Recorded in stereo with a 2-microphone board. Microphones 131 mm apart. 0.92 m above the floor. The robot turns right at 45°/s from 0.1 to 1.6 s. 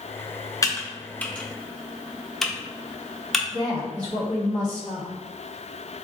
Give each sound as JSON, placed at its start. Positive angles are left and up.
{"t": 0.6, "sound": "typing on a keyboard", "side_deg": 25, "distance_m": 0.5}
{"t": 3.5, "sound": "a woman speaking", "side_deg": -35, "distance_m": 1.1}